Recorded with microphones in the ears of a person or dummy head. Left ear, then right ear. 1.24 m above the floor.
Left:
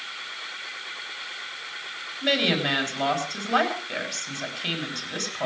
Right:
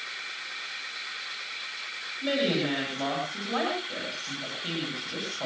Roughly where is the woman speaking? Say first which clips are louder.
Left 5 dB; left.